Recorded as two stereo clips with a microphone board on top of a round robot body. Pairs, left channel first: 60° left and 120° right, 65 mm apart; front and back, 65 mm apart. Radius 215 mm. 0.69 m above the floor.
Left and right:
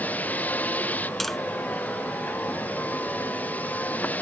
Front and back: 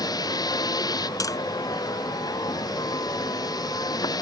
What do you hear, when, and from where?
0.0 s a vehicle: 5° right
1.2 s tapping: 30° right